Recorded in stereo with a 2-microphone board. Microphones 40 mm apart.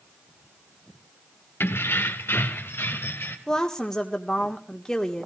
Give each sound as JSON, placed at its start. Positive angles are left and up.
{"t": 1.6, "sound": "keys jangling", "side_deg": 80, "distance_m": 1.1}
{"t": 3.5, "sound": "a woman speaking", "side_deg": 15, "distance_m": 1.7}